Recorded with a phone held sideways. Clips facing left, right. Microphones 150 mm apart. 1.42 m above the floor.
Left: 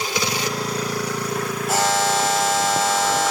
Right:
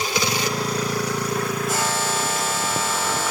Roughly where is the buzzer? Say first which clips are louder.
Left 4 dB; left.